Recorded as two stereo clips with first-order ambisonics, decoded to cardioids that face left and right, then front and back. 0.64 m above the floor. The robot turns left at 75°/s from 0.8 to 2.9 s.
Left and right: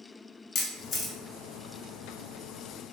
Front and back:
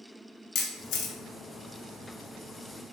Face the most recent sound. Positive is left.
turn(degrees=-115)